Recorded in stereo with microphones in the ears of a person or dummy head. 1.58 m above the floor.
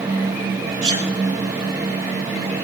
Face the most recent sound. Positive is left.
turn(degrees=-30)  # may be behind; listen again after turning